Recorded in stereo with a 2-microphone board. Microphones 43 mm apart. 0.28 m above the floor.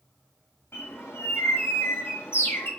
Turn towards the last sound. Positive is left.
turn(degrees=80)